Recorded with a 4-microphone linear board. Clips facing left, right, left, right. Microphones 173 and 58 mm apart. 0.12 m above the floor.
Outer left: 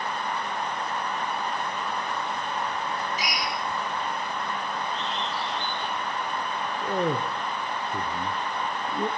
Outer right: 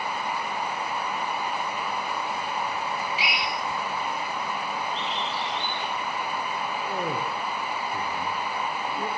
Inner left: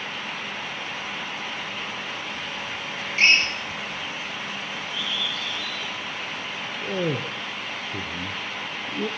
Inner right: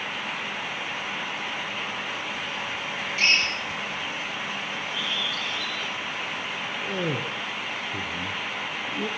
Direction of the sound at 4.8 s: 80° right.